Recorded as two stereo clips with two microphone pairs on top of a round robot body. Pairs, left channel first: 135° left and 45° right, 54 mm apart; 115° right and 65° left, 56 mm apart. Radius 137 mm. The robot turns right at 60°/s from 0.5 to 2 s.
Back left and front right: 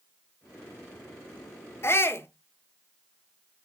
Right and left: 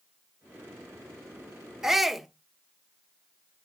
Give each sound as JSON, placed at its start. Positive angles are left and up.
{"t": 1.8, "sound": "a shout", "azimuth_deg": 145, "distance_m": 1.5}